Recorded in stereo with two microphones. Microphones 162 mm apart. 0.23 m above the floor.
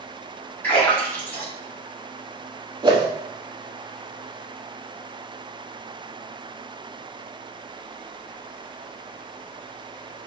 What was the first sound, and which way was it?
A splash, 15° left (ahead or behind).